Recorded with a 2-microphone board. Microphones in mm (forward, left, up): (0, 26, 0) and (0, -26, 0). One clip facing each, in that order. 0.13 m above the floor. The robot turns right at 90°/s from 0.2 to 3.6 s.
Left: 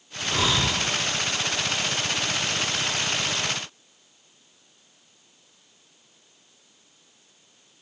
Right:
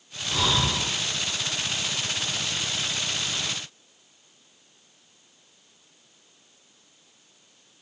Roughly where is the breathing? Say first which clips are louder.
Left 1 dB; behind left.